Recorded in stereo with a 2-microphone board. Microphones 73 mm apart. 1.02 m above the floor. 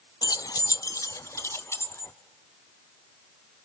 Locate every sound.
0.2 s keys jangling: 70° left (ahead or behind), 0.5 m; by 2.1 s 35° left (ahead or behind), 1.4 m